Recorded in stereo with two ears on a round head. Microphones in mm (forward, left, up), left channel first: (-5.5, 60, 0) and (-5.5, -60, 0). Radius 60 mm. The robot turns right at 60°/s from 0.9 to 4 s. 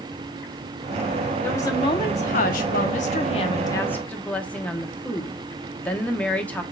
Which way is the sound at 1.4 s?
15° left.